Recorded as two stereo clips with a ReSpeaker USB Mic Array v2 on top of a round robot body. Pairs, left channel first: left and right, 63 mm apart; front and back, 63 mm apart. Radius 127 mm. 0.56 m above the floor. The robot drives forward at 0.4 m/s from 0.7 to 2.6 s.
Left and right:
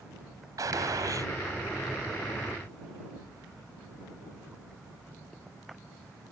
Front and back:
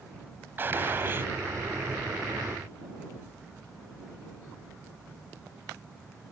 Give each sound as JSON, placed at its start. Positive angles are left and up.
{"t": 0.6, "sound": "a gunshot", "azimuth_deg": -120}